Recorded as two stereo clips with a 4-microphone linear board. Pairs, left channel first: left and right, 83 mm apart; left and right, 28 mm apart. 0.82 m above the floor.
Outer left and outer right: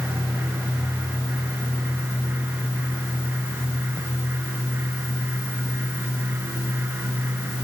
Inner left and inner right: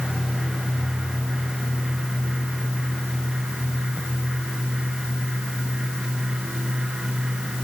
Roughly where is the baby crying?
No baby crying in this recording.